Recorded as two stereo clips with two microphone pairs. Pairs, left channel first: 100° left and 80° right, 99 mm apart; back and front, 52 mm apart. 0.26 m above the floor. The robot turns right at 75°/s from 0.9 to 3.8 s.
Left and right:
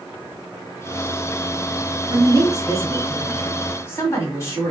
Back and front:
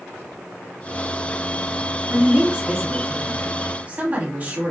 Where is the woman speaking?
80° right, 1.4 m; by 4.7 s 50° left, 1.4 m.